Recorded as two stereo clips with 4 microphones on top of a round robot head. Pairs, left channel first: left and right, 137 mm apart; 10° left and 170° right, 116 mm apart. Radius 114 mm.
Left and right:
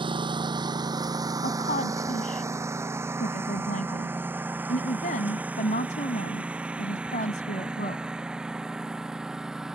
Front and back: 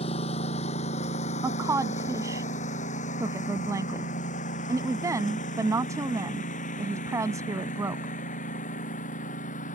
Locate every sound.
0.0 s a lawn mower: 35° right; by 9.8 s 5° right
1.4 s a woman speaking: 130° left